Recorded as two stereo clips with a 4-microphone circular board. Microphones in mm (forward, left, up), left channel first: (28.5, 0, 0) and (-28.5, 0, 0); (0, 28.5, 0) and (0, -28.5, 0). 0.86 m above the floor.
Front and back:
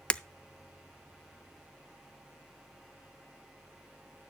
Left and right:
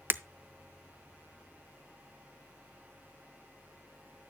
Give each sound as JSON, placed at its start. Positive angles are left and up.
{"t": 0.1, "sound": "breaking glass", "azimuth_deg": -60, "distance_m": 0.6}